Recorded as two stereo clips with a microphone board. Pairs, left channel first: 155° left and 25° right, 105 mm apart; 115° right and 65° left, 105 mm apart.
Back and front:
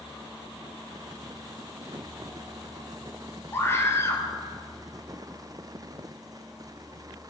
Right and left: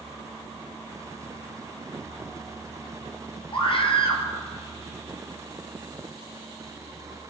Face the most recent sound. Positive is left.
turn(degrees=-140)